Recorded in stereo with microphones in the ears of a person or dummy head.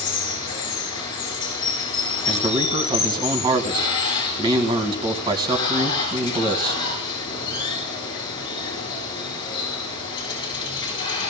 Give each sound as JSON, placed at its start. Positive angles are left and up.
{"t": 0.0, "sound": "running water", "side_deg": 25, "distance_m": 7.0}
{"t": 2.3, "sound": "a man speaking", "side_deg": -30, "distance_m": 2.0}